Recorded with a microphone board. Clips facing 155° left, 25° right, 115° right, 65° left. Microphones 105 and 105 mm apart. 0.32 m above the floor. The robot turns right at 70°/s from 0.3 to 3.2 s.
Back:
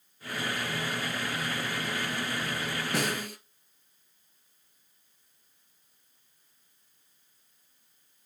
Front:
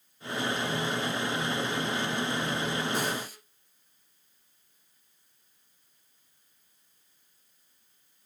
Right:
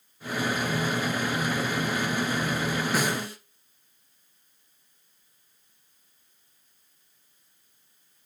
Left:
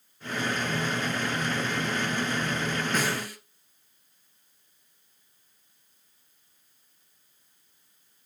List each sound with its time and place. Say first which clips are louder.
2.9 s a snare drum: even, right 2 dB; 165° left, 1.4 m; by 3.4 s 175° right, 1.4 m